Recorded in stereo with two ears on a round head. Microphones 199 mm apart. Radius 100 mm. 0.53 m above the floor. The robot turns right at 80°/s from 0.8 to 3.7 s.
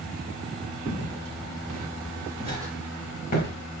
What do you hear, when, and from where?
0.9 s footsteps: 45° right (ahead or behind), 4.5 m; by 3.5 s 45° left (ahead or behind), 7 m